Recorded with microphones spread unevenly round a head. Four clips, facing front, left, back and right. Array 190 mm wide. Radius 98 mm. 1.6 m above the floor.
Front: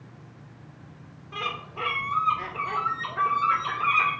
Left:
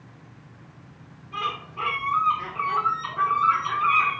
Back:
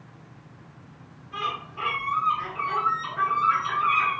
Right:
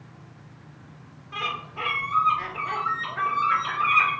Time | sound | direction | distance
1.3 | a bird | 20° right | 2 m